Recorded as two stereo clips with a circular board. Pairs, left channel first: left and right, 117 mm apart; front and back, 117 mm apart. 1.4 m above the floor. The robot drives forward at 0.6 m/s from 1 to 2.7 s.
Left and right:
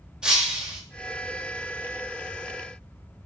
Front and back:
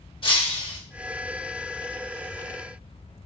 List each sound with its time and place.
0.2 s breaking glass: 10° right, 1.0 m